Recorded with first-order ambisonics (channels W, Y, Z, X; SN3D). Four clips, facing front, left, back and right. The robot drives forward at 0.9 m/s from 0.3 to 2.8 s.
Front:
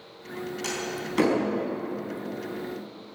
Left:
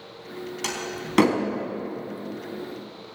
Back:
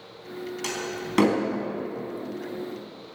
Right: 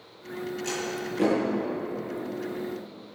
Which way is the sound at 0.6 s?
100° left.